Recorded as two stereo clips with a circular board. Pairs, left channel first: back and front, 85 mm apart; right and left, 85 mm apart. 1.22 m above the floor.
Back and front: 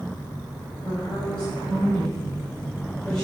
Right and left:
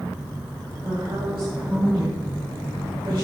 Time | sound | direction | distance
0.8 | a woman speaking | 110° left | 8 m